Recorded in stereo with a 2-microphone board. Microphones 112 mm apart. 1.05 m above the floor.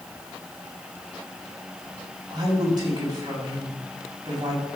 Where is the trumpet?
No trumpet in this recording.